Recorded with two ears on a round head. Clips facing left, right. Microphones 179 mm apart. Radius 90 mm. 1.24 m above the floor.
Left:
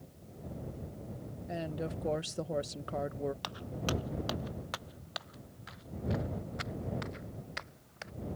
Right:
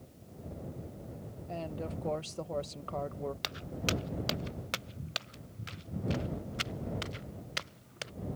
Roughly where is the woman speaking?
Centre.